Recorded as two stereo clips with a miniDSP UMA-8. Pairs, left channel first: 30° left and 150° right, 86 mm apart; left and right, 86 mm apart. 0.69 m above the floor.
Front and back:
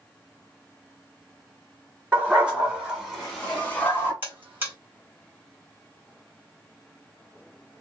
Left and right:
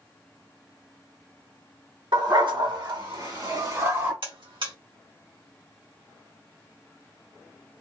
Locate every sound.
2.1 s a dog barking: 80° right, 1.8 m; by 4.1 s 30° right, 1.1 m
4.2 s a buzzer: 80° right, 1.6 m